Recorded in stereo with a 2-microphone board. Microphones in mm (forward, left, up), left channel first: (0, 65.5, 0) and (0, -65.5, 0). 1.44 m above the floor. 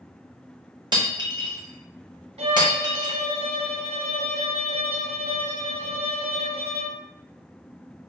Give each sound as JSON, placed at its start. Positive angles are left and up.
{"t": 0.9, "sound": "breaking glass", "side_deg": -35, "distance_m": 0.7}
{"t": 2.4, "sound": "a violin", "side_deg": -50, "distance_m": 0.6}